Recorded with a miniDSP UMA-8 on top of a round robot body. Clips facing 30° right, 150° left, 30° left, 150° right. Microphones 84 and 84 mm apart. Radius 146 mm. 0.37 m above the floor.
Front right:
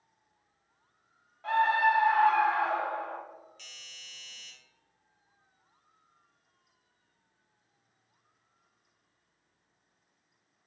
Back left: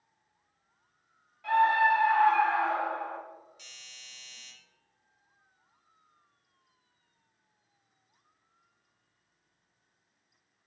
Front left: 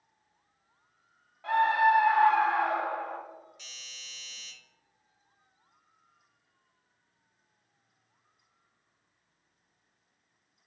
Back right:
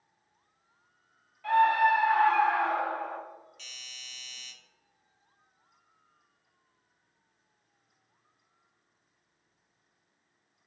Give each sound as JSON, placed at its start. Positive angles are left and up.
{"t": 1.4, "sound": "a scream", "azimuth_deg": -5, "distance_m": 1.7}
{"t": 3.6, "sound": "a doorbell", "azimuth_deg": 85, "distance_m": 1.6}